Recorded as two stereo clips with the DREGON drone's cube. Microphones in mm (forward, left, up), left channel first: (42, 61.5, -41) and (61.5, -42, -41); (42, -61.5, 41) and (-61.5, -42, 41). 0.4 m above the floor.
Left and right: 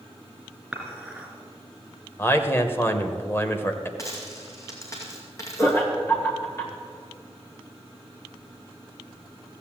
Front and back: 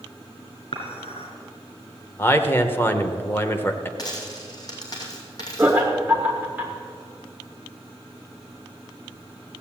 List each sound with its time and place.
0.7 s dishes clattering: 5° left, 3 m
2.2 s a man speaking: 45° left, 1.0 m
4.0 s a dropped coin: 40° left, 2.5 m
5.6 s laughter: 120° left, 1.3 m